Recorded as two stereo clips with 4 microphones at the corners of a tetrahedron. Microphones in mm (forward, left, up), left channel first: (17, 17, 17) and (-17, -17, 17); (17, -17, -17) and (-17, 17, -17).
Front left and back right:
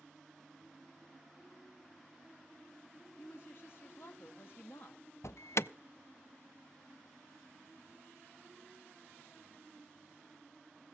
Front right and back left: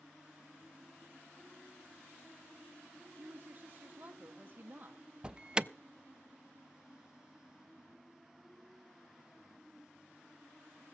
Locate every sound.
3.2 s a woman speaking: 85° left, 1.5 m
5.2 s an alarm: 65° left, 0.5 m